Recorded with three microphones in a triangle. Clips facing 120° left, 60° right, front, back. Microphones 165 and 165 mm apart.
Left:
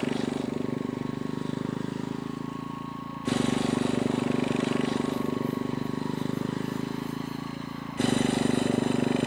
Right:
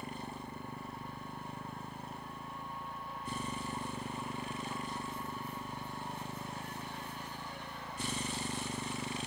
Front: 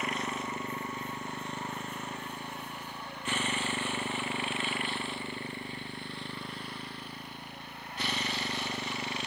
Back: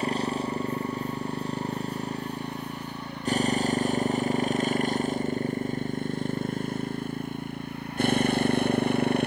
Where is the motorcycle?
120° left; by 9.3 s 140° left.